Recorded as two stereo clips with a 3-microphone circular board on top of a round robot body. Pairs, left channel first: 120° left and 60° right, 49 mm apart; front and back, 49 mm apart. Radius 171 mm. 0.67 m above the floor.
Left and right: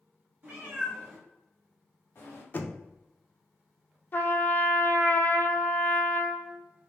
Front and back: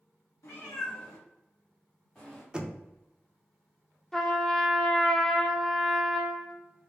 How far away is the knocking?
About 0.8 m.